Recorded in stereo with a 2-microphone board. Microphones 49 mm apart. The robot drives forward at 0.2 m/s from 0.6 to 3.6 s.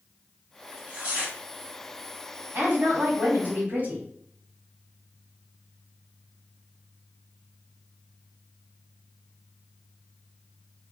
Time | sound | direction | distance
0.7 | tearing paper | 30° right (ahead or behind) | 1.7 m
2.5 | a woman speaking | 40° right (ahead or behind) | 1.6 m